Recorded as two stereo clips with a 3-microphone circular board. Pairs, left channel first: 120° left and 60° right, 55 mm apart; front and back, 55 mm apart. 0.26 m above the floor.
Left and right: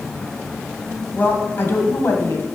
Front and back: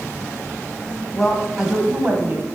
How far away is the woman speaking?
About 1.4 m.